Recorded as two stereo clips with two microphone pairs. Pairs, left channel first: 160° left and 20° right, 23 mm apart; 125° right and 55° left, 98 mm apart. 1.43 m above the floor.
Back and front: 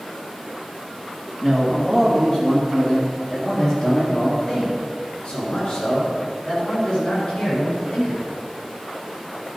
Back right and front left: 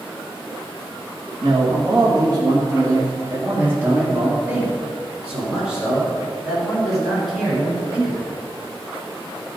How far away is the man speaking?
About 2.5 m.